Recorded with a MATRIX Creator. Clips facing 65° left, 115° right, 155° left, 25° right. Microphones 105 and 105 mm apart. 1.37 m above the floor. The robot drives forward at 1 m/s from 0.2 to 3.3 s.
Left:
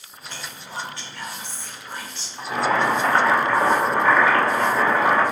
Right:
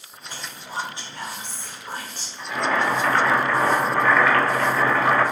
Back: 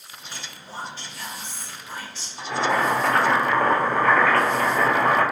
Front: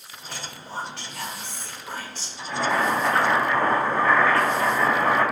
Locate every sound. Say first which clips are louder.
0.3 s whispering: right 2 dB, front 4 dB; 30° right, 3 m; by 2.3 s 65° right, 1.9 m
2.4 s boiling: left 2 dB, back 1 dB; 120° left, 2 m; by 5.2 s 140° left, 2.5 m